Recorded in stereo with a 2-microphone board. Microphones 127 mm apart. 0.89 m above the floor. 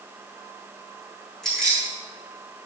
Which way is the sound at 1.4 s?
5° left (ahead or behind).